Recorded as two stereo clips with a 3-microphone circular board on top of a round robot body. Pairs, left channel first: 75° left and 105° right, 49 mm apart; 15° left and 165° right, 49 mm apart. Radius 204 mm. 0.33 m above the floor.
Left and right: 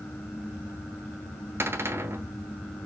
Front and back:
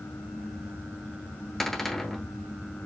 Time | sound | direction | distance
1.6 | a cupboard door | 70° right | 2.5 m